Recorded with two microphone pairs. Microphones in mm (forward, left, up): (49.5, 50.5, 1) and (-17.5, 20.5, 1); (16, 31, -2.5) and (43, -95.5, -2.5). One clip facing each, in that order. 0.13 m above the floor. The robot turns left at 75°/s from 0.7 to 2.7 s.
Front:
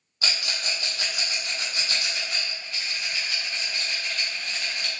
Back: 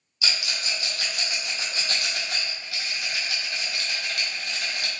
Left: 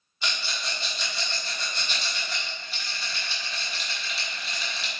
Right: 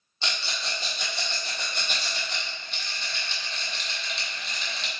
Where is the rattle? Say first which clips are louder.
Even, even; 20° right, 1.1 m; by 4.9 s 170° right, 1.1 m.